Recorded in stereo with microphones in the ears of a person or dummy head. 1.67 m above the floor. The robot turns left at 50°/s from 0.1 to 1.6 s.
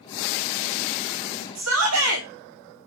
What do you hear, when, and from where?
1.6 s a shout: 85° right, 1.4 m; by 2.3 s 90° right, 1.4 m